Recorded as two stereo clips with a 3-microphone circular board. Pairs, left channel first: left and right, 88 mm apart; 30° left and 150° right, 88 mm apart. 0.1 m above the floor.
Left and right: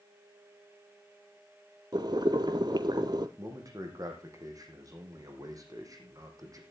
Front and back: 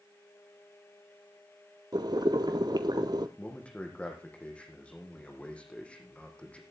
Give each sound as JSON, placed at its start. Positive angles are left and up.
{"t": 1.9, "sound": "boiling", "azimuth_deg": -120, "distance_m": 0.8}
{"t": 3.4, "sound": "a man speaking", "azimuth_deg": -45, "distance_m": 4.0}